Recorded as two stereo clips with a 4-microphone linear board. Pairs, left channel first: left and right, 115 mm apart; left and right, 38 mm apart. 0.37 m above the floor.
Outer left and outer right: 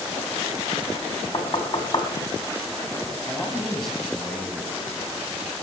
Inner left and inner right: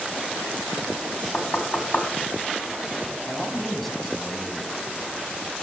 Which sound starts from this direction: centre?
A man speaking, at 3.3 s.